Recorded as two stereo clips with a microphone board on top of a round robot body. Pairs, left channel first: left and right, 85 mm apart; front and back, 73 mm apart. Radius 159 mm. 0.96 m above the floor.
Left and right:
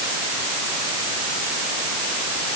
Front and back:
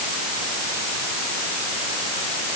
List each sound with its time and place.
Only background noise.